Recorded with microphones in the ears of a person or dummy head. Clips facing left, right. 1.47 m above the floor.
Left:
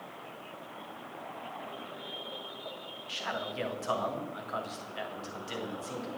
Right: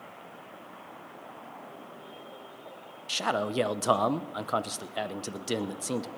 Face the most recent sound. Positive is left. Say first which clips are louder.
# right 9 dB
turn(degrees=-65)  # may be behind; listen again after turning